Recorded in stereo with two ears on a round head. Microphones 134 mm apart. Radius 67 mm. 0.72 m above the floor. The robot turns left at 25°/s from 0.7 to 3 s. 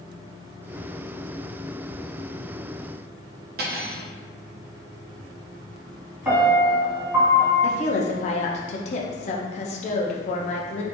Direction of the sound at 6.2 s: 10° right (ahead or behind).